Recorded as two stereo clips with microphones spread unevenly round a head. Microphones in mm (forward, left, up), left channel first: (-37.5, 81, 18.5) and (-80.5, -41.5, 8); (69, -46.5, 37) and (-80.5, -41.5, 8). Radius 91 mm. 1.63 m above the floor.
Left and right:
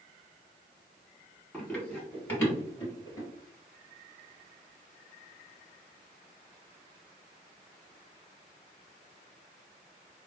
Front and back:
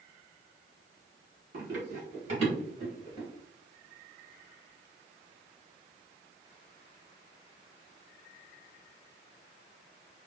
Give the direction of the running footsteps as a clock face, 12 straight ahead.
7 o'clock.